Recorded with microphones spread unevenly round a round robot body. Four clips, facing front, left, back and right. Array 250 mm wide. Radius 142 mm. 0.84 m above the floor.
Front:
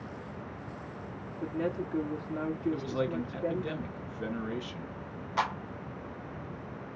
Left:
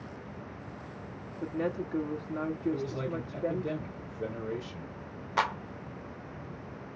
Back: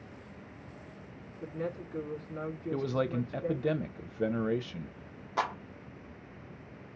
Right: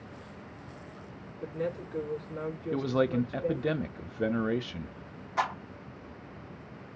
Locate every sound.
1.4 s a woman speaking: 40° left, 1.7 m
2.7 s a man speaking: 85° right, 0.9 m
5.4 s a clap: 135° left, 0.8 m